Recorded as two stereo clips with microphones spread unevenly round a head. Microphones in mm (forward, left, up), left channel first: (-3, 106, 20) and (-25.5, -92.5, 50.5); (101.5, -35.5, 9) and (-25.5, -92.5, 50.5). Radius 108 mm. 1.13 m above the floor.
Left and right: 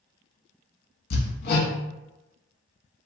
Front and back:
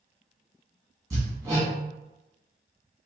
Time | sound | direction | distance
1.1 | hammering | 125° left | 1.3 m